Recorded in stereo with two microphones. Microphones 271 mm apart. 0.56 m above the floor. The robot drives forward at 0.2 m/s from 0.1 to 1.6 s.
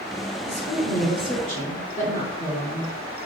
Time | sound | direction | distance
0.4 | a woman speaking | 25° left (ahead or behind) | 1.6 m